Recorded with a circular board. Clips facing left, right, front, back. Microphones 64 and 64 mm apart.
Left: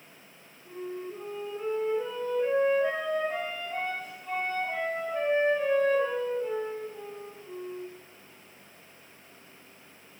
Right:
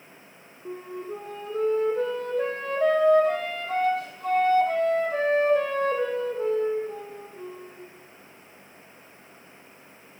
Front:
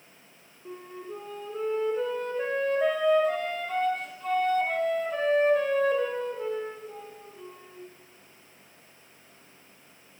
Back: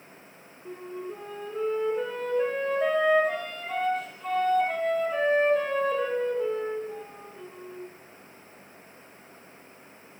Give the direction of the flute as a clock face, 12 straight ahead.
3 o'clock.